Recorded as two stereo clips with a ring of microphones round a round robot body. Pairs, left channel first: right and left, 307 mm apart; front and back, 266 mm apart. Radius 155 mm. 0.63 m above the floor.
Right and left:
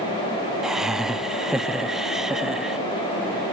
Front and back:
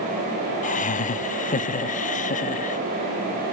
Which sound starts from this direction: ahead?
Laughter, at 0.6 s.